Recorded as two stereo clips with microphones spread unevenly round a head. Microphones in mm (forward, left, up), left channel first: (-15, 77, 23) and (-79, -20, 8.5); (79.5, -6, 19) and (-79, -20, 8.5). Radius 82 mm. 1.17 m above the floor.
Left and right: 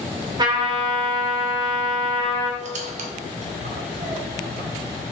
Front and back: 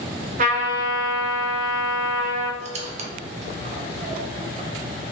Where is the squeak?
130° right, 0.7 m.